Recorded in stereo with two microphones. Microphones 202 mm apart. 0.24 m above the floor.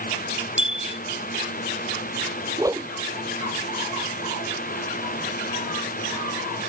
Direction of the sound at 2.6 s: 15° right (ahead or behind).